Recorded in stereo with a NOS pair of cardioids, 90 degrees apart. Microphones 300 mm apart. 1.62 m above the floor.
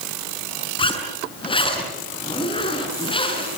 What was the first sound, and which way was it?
A zipper, 15° left.